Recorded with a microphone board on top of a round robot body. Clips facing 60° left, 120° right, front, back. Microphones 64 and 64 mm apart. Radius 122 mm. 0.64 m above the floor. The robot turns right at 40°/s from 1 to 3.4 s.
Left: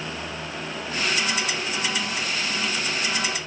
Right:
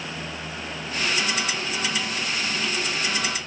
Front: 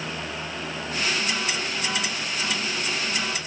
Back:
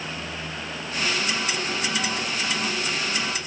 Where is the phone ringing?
I don't hear a phone ringing.